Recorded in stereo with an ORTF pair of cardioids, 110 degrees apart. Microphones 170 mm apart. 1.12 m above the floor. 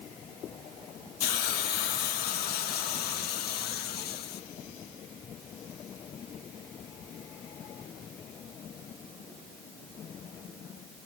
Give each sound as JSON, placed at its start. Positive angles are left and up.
{"t": 1.2, "sound": "a hiss", "azimuth_deg": 70, "distance_m": 1.7}